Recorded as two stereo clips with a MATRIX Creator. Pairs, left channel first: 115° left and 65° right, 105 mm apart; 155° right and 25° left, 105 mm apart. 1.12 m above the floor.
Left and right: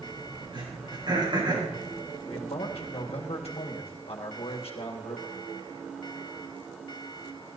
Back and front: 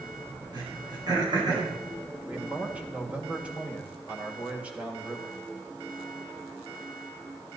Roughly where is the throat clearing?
Ahead right.